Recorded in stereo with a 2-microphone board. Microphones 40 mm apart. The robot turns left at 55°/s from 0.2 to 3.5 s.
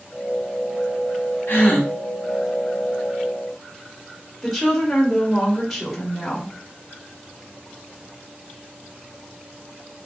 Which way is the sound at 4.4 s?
5° left (ahead or behind).